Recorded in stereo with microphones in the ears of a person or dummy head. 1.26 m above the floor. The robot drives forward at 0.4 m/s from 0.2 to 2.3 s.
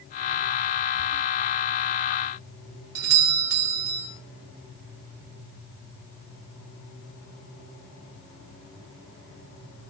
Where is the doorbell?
80° right, 4 m.